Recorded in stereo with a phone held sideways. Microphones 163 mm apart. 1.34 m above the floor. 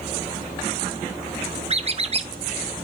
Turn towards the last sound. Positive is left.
turn(degrees=-40)  # may be behind; listen again after turning